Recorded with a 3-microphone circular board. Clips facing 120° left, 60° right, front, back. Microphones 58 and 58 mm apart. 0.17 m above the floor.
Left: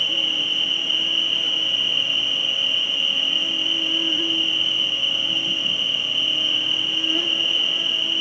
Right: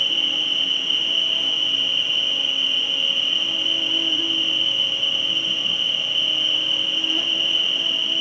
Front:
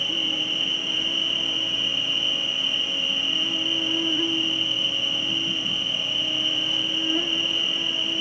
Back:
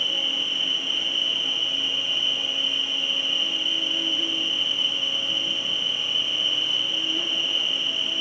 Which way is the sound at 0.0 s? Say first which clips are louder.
Even, even; 55° left.